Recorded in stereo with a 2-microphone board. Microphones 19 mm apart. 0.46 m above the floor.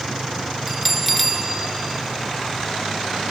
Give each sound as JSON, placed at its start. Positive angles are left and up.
{"t": 0.7, "sound": "a bell", "side_deg": -10, "distance_m": 1.5}